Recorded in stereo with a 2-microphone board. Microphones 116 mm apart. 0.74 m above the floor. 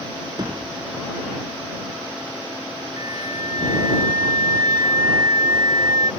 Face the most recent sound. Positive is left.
turn(degrees=-35)  # may be behind; listen again after turning